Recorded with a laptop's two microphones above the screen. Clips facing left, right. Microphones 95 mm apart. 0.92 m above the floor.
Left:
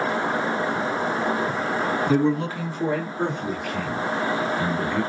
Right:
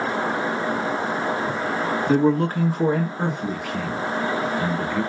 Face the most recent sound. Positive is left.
turn(degrees=10)  # may be behind; listen again after turning